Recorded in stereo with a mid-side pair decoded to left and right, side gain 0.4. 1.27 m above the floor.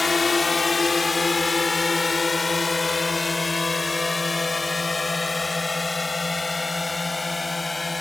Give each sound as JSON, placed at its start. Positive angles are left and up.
{"t": 0.0, "sound": "a drone", "azimuth_deg": 30}